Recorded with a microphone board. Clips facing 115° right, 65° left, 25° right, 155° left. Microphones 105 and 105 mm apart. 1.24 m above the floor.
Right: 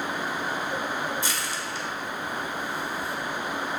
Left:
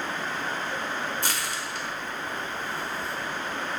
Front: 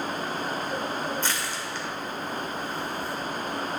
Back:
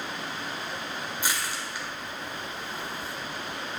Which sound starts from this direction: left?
Crushing, at 1.2 s.